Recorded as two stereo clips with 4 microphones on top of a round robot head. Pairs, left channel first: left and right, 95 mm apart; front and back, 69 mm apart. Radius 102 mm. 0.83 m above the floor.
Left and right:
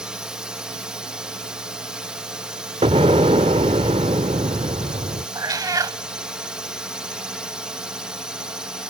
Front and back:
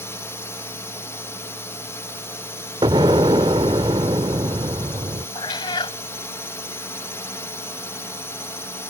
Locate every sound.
0.0 s a drone: 15° right
2.8 s an explosion: 135° right
5.3 s a cat meowing: 35° right